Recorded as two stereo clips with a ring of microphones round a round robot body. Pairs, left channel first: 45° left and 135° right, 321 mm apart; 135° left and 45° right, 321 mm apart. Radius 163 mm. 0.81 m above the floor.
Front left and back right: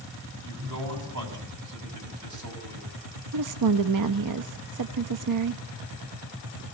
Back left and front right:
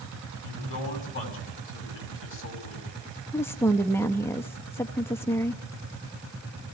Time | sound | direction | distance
0.4 | a man speaking | 170° right | 6 m
3.3 | a woman speaking | 145° right | 0.8 m